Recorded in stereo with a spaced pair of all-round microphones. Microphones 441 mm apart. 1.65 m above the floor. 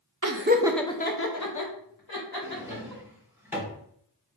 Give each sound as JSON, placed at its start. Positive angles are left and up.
{"t": 0.2, "sound": "laughter", "side_deg": -45, "distance_m": 0.5}
{"t": 2.4, "sound": "a drawer", "side_deg": -5, "distance_m": 0.9}